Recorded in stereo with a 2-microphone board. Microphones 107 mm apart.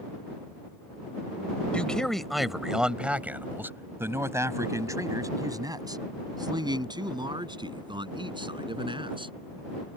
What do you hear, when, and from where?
1.7 s a man speaking: 10° left (ahead or behind); by 9.3 s 55° right (ahead or behind)